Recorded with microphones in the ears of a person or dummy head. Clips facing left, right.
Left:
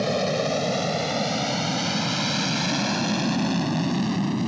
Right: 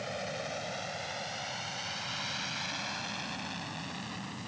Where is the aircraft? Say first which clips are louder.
Left 15 dB; 75° left (ahead or behind); by 4.5 s 70° left (ahead or behind).